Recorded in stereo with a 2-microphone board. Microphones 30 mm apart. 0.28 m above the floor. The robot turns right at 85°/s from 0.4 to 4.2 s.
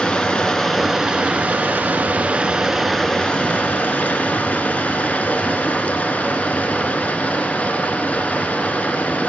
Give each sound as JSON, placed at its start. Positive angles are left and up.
{"t": 0.0, "sound": "running water", "azimuth_deg": 150, "distance_m": 1.0}